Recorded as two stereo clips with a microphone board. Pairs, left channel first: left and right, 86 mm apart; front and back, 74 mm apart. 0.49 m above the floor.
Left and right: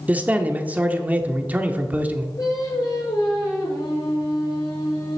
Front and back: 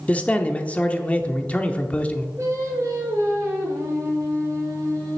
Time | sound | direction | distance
0.1 | a man speaking | 45° right | 0.8 m
2.4 | singing | 135° left | 4 m